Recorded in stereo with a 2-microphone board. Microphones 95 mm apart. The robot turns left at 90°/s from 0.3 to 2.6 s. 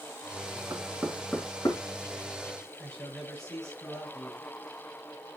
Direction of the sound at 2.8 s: 10° left (ahead or behind).